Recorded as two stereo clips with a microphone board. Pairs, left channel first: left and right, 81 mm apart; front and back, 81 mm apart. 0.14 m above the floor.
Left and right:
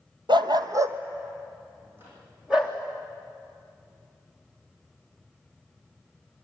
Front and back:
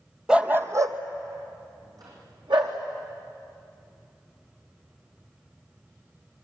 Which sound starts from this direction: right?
A dog barking, at 0.3 s.